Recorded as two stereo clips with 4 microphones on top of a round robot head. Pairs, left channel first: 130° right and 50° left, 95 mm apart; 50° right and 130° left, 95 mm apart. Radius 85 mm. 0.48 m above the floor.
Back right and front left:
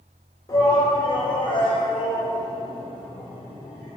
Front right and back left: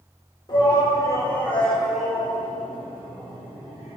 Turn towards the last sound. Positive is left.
turn(degrees=-175)